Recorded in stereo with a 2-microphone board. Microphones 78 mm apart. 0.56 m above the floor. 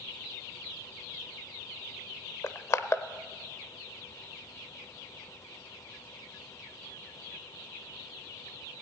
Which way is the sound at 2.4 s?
35° left (ahead or behind).